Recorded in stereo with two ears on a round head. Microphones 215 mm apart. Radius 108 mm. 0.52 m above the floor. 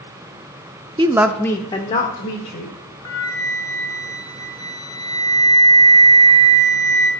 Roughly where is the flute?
Left.